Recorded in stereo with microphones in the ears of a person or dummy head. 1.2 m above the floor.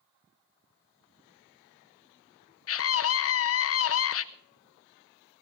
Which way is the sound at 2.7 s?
65° left (ahead or behind).